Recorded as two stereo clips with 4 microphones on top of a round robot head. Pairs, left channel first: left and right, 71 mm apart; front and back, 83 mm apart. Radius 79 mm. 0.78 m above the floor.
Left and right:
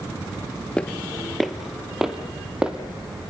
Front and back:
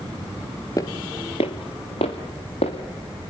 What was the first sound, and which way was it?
Footsteps, 20° left.